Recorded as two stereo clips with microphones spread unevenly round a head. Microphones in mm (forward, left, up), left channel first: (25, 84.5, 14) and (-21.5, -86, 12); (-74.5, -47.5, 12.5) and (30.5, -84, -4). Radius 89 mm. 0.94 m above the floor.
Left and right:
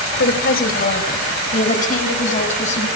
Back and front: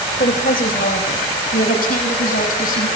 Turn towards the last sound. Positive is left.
turn(degrees=130)